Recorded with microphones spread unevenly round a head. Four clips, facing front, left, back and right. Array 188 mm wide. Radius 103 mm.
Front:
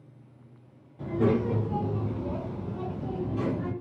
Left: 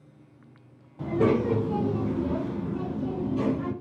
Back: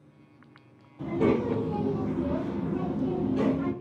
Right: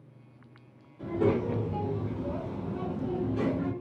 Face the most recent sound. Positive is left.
turn(degrees=-155)